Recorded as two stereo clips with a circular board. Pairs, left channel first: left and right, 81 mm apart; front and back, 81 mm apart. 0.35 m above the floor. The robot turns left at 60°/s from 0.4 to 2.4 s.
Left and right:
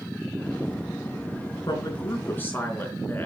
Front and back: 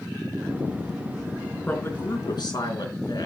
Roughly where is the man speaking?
Left.